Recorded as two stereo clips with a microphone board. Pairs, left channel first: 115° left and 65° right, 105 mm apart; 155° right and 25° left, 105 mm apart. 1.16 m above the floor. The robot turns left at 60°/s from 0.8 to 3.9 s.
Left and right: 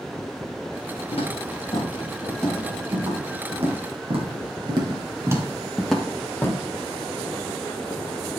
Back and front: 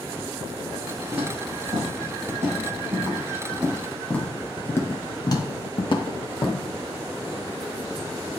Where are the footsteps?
105° left, 6 m; by 6.6 s 170° left, 2 m.